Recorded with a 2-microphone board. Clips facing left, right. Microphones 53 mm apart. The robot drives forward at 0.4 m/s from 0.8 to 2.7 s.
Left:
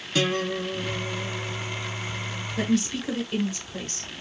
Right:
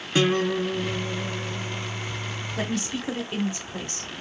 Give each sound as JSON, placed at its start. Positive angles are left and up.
{"t": 0.1, "sound": "a guitar", "side_deg": -30, "distance_m": 0.9}
{"t": 2.6, "sound": "a woman speaking", "side_deg": -30, "distance_m": 1.1}